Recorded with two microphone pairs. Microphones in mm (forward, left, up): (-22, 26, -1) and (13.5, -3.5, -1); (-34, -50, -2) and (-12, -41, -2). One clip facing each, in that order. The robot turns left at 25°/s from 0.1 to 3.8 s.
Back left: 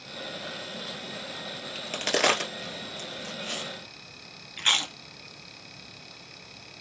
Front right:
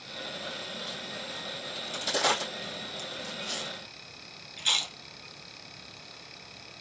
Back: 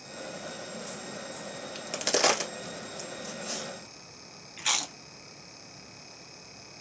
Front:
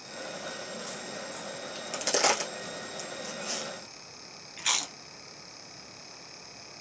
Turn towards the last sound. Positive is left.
turn(degrees=115)